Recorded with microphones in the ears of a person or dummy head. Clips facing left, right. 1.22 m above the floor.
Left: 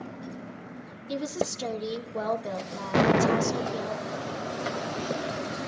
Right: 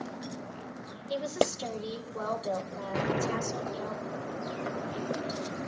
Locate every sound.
1.1 s a woman speaking: 70° left (ahead or behind), 1.6 m
2.9 s an explosion: 75° left (ahead or behind), 0.5 m